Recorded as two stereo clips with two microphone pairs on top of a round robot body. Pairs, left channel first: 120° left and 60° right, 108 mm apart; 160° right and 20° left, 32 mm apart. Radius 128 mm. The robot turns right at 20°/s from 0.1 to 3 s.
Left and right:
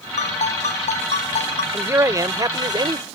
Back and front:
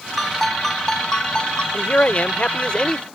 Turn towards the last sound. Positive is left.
turn(degrees=-100)